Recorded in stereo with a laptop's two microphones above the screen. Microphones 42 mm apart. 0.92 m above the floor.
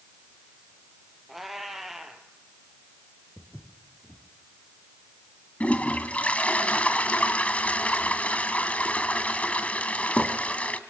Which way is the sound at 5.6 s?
35° left (ahead or behind).